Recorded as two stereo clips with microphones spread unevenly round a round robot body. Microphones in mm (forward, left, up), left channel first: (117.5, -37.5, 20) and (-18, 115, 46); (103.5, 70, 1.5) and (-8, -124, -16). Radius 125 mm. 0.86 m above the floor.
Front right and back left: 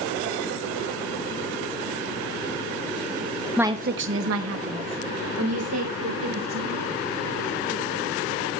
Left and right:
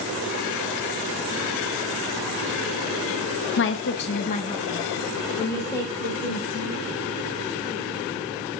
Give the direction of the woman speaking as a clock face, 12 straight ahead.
11 o'clock.